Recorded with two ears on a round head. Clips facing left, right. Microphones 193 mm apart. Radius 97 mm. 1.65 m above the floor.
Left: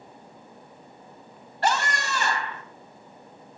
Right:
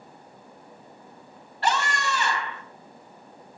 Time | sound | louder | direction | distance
1.6 | a scream | even | 40° left (ahead or behind) | 2.5 m